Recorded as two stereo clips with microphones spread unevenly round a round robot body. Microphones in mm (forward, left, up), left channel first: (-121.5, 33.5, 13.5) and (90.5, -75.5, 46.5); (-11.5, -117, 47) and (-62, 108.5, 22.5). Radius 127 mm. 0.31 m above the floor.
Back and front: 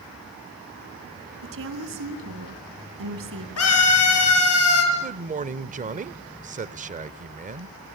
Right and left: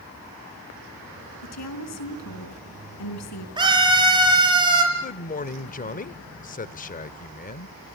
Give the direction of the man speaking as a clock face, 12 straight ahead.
2 o'clock.